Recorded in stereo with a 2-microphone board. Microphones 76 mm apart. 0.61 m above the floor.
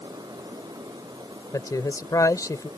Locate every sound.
1.5 s a man speaking: 45° left (ahead or behind)